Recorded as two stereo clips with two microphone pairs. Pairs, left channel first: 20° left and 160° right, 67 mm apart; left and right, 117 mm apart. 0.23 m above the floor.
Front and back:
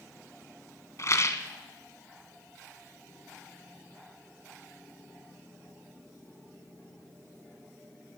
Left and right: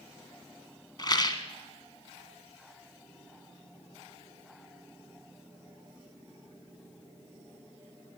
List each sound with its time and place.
1.0 s a rattle: 45° left, 0.9 m